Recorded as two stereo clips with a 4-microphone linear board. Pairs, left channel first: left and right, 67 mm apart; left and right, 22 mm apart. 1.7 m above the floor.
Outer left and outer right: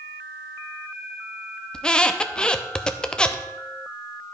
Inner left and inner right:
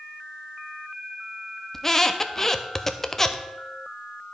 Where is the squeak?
15° left (ahead or behind), 0.5 m.